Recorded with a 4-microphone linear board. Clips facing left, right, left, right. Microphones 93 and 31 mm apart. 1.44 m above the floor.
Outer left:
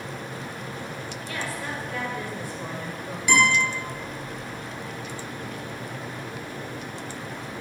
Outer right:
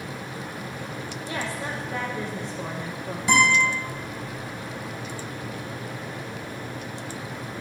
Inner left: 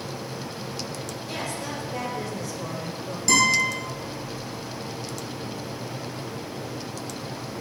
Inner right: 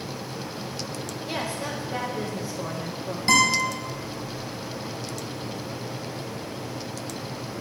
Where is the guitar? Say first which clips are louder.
Outer right 1 dB, even; 30° right (ahead or behind), 4 m.